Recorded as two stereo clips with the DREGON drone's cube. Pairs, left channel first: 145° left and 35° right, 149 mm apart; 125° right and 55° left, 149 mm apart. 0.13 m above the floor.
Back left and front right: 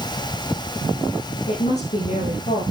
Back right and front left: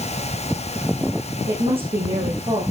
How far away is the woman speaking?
About 5 m.